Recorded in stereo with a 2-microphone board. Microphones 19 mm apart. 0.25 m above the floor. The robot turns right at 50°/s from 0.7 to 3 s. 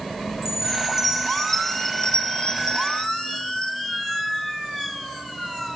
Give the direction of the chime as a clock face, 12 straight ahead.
1 o'clock.